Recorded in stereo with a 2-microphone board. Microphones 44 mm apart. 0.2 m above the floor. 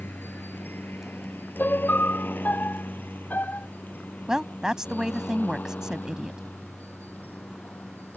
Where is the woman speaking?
15° right (ahead or behind).